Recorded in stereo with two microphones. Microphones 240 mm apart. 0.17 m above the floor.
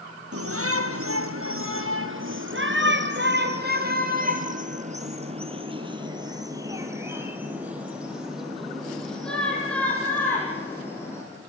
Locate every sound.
0.3 s a shout: 70° right (ahead or behind), 4 m; by 11.2 s 10° left (ahead or behind), 6 m